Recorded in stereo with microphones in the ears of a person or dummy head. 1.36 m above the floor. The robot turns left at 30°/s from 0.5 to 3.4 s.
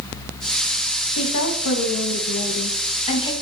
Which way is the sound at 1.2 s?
90° left.